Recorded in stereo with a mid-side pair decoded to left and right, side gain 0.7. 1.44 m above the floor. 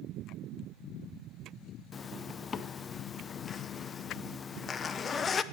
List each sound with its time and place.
1.9 s a zipper: 30° left, 0.6 m